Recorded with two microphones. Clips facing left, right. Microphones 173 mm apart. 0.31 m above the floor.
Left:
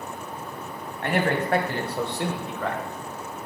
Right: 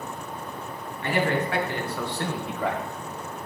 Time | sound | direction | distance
1.0 | a man speaking | 60° left (ahead or behind) | 2.5 m